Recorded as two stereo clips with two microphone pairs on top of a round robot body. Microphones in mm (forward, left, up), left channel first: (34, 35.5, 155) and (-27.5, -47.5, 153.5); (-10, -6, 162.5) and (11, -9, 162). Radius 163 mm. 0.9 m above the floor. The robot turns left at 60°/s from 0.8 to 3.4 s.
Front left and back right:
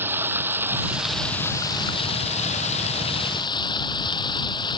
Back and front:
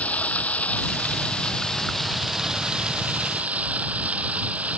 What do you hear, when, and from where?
0.0 s running water: 160° left; by 4.8 s 5° left